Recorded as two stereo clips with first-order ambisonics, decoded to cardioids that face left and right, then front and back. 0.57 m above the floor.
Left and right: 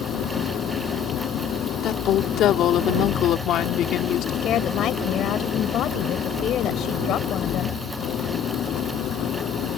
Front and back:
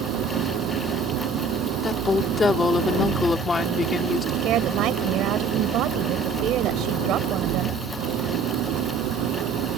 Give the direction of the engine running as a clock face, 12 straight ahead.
7 o'clock.